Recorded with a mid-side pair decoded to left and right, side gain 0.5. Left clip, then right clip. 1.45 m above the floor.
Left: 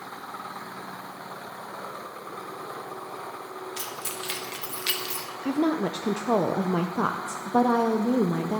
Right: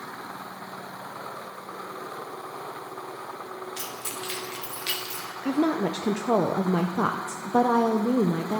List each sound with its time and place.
3.8 s keys jangling: 15° left, 2.0 m; by 5.3 s 35° left, 1.6 m
5.4 s a woman speaking: 5° right, 0.6 m